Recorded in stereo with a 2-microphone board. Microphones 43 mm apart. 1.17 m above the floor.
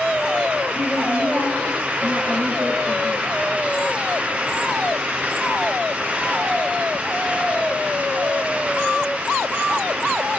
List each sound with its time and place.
0.8 s a woman speaking: 35° left (ahead or behind), 4.5 m